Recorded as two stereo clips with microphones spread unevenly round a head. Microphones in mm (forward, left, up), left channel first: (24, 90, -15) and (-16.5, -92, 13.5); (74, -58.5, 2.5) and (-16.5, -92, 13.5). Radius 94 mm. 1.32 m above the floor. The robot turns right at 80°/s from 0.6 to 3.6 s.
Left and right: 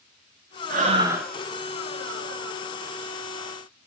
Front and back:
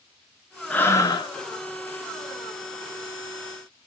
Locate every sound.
0.7 s breathing: 55° right, 0.8 m; by 1.3 s 5° right, 0.8 m